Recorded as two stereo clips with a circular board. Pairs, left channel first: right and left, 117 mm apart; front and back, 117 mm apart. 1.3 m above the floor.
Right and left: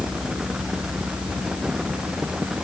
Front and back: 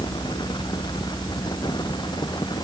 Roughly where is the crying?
I don't hear crying.